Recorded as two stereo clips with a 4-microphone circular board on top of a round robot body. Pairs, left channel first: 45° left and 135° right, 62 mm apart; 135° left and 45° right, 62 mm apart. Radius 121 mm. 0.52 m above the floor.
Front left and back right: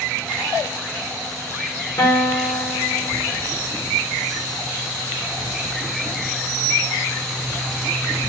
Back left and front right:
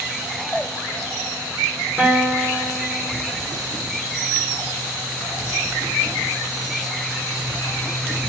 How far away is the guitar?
About 1.7 m.